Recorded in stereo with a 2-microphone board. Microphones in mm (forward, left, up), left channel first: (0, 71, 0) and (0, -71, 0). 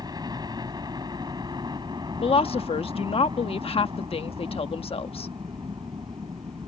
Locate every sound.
0.0 s a helicopter: 30° right (ahead or behind); by 6.7 s 35° right (ahead or behind)
2.2 s a woman speaking: 45° left (ahead or behind)